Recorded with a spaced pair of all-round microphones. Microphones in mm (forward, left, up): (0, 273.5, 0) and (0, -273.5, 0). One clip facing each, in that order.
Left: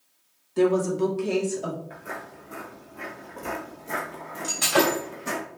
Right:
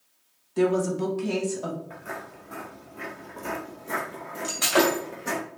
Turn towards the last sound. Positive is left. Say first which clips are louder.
# even
turn(degrees=50)  # may be behind; listen again after turning